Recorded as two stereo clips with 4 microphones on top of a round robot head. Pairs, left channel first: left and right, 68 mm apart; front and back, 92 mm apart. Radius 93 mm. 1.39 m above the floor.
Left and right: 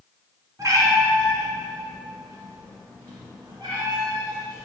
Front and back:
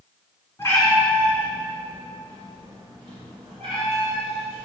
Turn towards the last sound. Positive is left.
turn(degrees=-140)